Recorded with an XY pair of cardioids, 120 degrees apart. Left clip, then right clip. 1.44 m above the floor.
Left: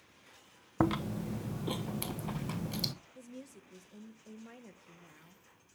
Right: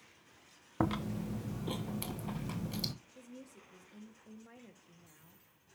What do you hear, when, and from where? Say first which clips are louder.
0.8 s chewing: left 3 dB; 15° left, 1.1 m
3.1 s a woman speaking: left 3 dB; 20° left, 1.4 m